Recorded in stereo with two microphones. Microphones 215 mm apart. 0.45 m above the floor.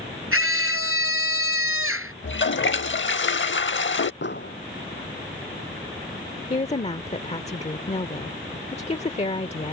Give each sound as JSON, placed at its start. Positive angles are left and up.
{"t": 0.3, "sound": "a scream", "side_deg": -85}
{"t": 2.2, "sound": "a toilet flushing", "side_deg": 65}
{"t": 4.2, "sound": "an explosion", "side_deg": 55}
{"t": 6.5, "sound": "a woman speaking", "side_deg": 30}